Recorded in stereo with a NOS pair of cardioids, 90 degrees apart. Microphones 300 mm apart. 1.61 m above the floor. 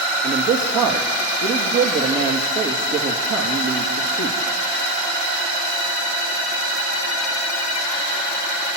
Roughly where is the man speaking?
Ahead right.